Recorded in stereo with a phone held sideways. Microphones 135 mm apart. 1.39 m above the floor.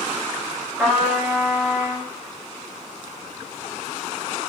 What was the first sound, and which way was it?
A trumpet, 10° right (ahead or behind).